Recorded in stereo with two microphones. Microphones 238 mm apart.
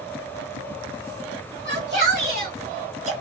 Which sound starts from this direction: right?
A shout, at 1.6 s.